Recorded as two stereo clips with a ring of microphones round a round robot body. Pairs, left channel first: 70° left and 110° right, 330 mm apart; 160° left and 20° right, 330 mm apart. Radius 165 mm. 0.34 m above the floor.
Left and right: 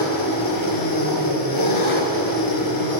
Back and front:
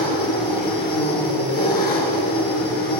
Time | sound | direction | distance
0.0 | an engine running | 95° left | 3.5 m